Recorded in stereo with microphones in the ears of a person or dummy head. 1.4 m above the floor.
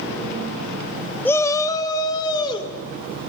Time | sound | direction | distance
1.2 | a shout | 10° left (ahead or behind) | 0.5 m